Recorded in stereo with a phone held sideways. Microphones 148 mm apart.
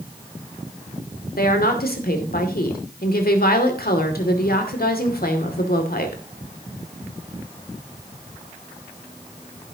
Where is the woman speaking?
85° left, 2.5 m.